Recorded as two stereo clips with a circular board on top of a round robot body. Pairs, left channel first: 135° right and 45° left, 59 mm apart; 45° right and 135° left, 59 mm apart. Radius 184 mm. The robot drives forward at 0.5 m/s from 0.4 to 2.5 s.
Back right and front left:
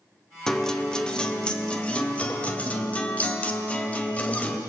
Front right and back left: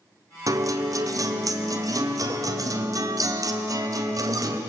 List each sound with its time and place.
0.5 s a guitar: 140° left, 2 m; by 4.6 s 155° left, 3 m